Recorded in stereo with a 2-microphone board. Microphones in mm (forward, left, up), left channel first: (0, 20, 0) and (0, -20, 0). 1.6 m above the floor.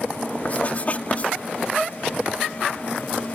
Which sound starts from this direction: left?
Writing, at 0.5 s.